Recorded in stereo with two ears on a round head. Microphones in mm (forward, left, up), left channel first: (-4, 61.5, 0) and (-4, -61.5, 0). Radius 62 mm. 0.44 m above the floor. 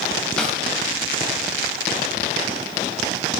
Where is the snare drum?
5° left (ahead or behind), 2.5 m.